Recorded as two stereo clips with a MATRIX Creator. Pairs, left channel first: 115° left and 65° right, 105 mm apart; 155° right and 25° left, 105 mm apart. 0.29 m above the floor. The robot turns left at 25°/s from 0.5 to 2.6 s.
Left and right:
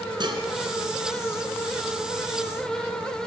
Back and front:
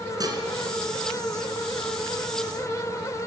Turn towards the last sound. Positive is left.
turn(degrees=-80)